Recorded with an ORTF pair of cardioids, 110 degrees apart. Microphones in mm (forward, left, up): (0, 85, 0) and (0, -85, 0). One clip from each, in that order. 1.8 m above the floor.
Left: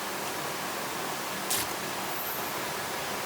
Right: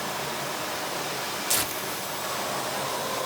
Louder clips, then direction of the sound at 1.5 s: Right 4 dB; 30° right.